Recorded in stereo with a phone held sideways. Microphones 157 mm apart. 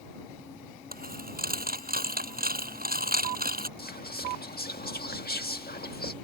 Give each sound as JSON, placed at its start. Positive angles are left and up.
{"t": 0.9, "sound": "a dropped coin", "side_deg": -70}
{"t": 3.8, "sound": "whispering", "side_deg": 80}